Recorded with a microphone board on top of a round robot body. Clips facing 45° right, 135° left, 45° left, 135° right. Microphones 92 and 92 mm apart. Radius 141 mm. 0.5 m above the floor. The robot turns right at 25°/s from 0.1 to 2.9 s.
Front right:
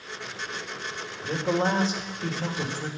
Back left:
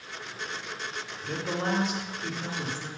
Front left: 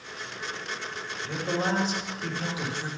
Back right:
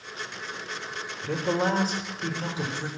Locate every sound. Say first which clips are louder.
1.2 s a man speaking: front right 6 dB, back right 3 dB; 115° right, 2.5 m; by 2.9 s 70° right, 2.5 m